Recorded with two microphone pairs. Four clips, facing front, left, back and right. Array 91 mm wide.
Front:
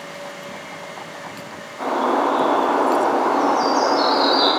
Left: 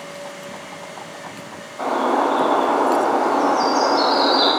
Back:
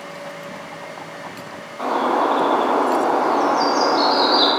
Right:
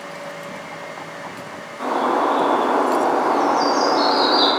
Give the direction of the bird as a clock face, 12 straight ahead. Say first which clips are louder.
Even, even; 8 o'clock.